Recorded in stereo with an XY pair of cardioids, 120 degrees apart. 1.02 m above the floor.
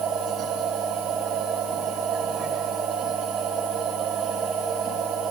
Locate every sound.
0.0 s a machine running: 70° right, 3 m